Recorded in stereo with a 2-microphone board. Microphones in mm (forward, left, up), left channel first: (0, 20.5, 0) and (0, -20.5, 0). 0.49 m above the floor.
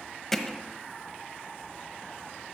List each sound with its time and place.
0.3 s hammering: 10° left (ahead or behind), 1.1 m